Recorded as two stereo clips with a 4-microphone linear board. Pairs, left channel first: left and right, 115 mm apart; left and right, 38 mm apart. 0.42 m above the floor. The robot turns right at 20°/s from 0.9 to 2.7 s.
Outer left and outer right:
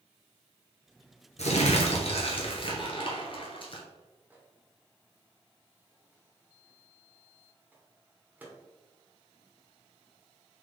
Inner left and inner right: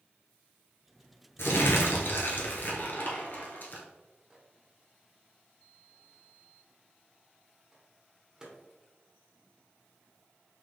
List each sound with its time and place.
1.4 s crumpling: 75° left (ahead or behind), 1.1 m; by 3.8 s 50° left (ahead or behind), 1.1 m
4.3 s a microwave: 15° right (ahead or behind), 1.1 m